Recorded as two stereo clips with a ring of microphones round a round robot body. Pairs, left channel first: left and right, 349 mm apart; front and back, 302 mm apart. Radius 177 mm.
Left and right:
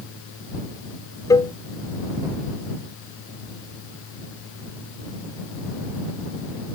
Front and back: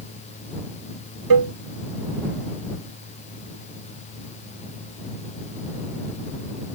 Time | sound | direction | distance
1.3 | a cowbell | 170° left | ?